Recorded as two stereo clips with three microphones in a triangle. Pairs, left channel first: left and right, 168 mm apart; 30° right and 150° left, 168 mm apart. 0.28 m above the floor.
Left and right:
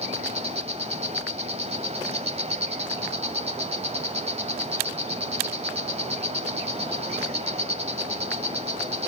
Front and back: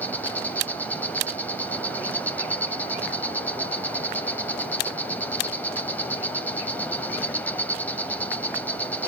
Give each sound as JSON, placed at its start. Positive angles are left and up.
{"t": 0.0, "sound": "an insect", "azimuth_deg": -105, "distance_m": 1.4}